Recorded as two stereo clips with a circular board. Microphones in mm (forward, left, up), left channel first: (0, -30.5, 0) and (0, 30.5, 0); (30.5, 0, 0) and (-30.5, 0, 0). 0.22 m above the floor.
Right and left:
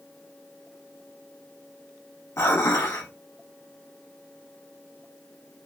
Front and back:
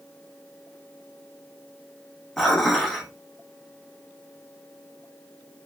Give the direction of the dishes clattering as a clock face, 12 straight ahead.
3 o'clock.